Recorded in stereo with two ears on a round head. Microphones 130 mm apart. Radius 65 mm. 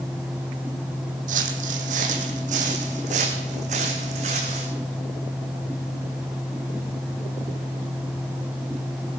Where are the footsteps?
60° right (ahead or behind), 2 m; by 4.7 s 50° right (ahead or behind), 3.5 m.